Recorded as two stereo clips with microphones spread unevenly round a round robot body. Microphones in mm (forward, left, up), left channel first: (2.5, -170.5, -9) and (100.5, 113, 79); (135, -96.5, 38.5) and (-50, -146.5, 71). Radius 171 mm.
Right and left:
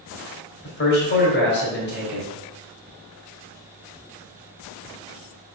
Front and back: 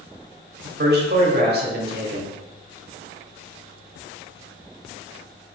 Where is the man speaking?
135° right, 2 m.